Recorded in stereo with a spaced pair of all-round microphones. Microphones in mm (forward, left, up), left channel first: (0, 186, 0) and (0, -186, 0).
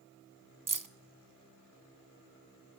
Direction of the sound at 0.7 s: 60° right (ahead or behind).